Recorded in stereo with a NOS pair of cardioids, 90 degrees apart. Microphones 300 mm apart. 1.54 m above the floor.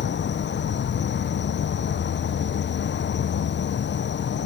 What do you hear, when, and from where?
0.0 s an insect: 40° left, 0.8 m